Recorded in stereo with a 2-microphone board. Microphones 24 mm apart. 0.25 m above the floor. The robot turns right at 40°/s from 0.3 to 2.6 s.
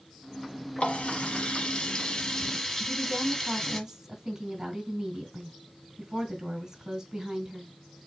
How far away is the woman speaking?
About 2 m.